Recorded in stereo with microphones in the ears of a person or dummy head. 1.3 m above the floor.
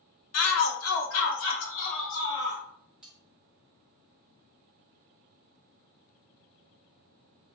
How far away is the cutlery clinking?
About 0.8 m.